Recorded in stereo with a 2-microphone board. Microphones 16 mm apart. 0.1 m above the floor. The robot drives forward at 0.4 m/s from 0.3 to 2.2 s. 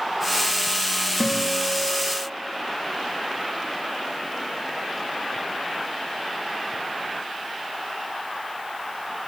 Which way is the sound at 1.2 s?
75° right (ahead or behind).